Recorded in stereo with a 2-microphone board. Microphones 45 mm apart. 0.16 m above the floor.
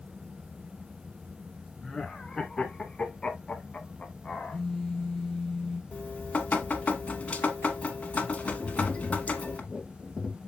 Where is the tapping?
10° left (ahead or behind), 0.8 m.